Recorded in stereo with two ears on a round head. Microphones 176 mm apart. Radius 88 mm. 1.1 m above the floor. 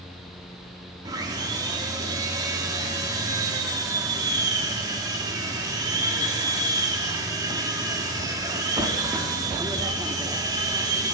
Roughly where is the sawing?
Centre.